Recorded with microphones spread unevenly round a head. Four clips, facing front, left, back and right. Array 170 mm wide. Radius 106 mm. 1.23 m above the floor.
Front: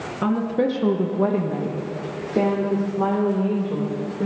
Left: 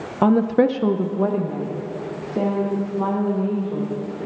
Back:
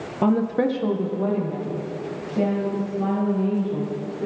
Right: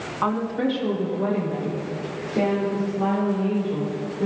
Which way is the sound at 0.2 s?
120° left.